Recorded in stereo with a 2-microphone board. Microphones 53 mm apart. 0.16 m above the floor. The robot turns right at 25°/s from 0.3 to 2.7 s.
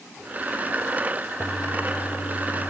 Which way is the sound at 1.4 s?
35° left.